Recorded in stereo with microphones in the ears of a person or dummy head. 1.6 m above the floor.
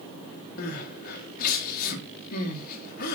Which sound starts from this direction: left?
Crying, at 0.6 s.